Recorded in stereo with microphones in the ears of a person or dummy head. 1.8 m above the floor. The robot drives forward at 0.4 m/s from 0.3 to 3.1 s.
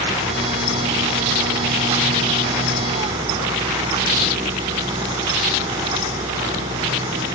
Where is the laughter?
No laughter in this recording.